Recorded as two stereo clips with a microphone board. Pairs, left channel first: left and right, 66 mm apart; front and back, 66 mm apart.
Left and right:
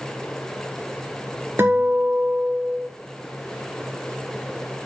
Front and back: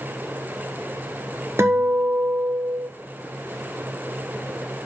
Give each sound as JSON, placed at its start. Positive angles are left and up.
{"t": 1.6, "sound": "a guitar", "azimuth_deg": -145, "distance_m": 1.4}